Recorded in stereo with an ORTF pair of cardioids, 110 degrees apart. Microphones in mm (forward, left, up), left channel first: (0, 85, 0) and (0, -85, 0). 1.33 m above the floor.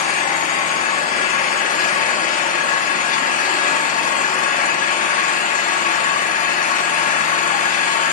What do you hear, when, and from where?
0.0 s an engine running: 50° left, 1.9 m